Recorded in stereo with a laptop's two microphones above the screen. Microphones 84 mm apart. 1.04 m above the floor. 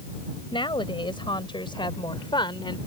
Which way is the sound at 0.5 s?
85° left.